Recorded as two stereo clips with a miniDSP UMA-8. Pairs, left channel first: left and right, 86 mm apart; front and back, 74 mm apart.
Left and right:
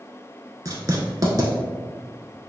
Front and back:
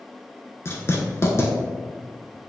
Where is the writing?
45° right, 0.8 m.